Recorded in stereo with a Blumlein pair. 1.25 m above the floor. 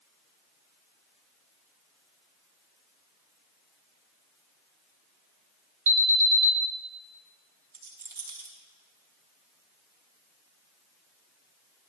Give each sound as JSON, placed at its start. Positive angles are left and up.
{"t": 5.9, "sound": "an alarm", "azimuth_deg": -60, "distance_m": 1.6}
{"t": 7.7, "sound": "a rattle", "azimuth_deg": -65, "distance_m": 3.0}